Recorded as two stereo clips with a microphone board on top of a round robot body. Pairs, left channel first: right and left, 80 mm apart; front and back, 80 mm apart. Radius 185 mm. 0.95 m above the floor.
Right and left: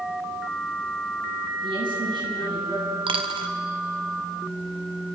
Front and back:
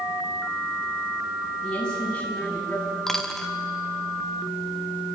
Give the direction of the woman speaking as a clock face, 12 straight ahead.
9 o'clock.